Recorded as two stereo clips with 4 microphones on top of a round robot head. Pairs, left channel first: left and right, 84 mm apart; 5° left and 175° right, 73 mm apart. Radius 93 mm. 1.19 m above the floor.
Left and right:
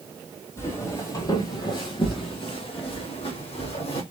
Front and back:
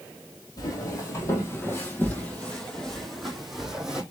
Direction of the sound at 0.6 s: 35° left.